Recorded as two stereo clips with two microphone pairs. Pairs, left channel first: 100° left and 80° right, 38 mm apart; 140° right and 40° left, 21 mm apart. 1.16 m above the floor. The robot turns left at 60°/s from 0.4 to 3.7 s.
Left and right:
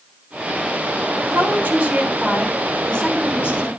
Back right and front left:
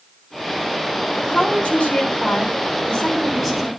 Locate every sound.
1.2 s a woman speaking: 90° right, 8 m; by 3.7 s 125° left, 8 m